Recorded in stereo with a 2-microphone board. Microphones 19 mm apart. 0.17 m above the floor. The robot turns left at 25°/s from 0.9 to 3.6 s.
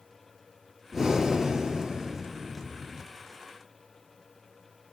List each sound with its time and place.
0.9 s breathing: 15° right, 3.5 m; by 3.0 s 70° right, 3.5 m